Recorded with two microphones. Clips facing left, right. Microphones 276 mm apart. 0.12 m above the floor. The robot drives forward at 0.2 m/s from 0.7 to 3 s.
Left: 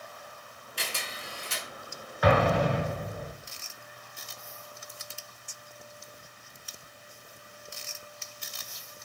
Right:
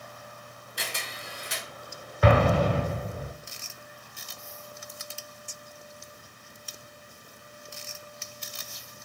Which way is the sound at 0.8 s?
20° right (ahead or behind).